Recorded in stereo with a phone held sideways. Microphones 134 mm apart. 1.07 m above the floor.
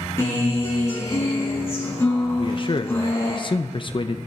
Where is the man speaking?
40° left (ahead or behind), 0.7 m.